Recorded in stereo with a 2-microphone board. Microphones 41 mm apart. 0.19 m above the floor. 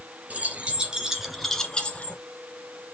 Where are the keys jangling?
35° right (ahead or behind), 2 m; by 2.2 s 40° left (ahead or behind), 1.6 m.